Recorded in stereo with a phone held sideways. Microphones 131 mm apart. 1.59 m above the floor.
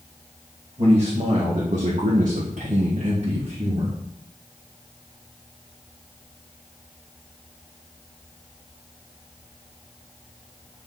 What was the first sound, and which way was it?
A man speaking, 50° right (ahead or behind).